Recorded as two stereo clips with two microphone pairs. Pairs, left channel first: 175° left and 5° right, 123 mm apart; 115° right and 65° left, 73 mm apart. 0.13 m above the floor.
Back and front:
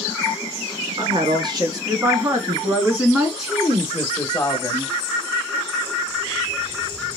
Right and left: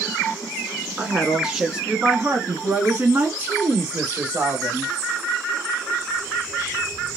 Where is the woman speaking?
15° right, 1.8 m; by 4.9 s 110° left, 1.9 m.